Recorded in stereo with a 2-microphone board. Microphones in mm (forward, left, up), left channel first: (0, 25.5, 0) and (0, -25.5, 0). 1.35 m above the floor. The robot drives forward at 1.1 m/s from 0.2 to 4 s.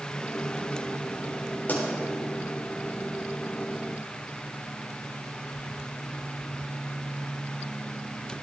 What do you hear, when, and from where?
1.7 s a pop: 35° left (ahead or behind), 4 m; by 1.8 s 40° left (ahead or behind), 4 m